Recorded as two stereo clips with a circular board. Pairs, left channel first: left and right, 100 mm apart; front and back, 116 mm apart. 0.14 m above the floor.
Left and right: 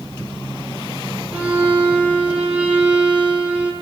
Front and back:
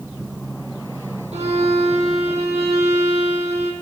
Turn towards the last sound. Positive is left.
turn(degrees=-165)